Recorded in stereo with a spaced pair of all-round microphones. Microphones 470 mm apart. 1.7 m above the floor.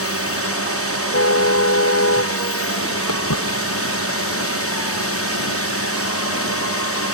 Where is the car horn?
30° left (ahead or behind).